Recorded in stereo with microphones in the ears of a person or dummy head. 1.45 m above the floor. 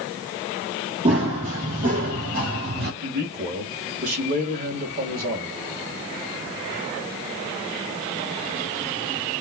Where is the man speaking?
45° right (ahead or behind), 1.8 m.